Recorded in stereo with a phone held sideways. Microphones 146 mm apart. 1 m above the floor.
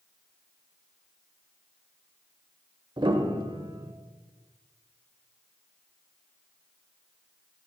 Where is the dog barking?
No dog barking in this recording.